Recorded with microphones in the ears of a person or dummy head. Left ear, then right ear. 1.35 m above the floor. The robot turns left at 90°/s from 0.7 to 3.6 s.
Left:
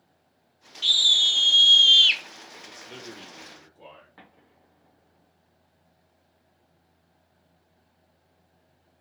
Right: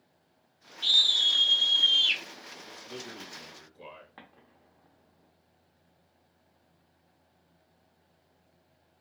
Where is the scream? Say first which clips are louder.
Left 4 dB; 145° left, 0.6 m; by 2.2 s 20° left, 0.6 m.